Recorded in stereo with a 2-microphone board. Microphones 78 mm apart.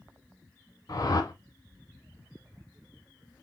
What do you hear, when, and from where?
0.9 s a whoosh: 55° left (ahead or behind), 0.8 m